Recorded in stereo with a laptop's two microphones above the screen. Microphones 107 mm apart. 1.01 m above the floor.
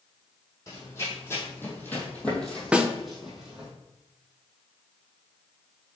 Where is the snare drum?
10° right (ahead or behind), 0.5 m.